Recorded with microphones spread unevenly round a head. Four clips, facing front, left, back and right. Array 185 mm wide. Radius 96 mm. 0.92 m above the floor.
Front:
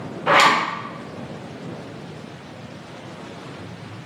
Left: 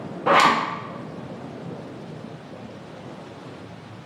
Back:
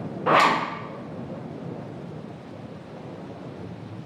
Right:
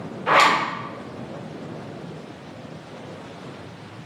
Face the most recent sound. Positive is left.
turn(degrees=80)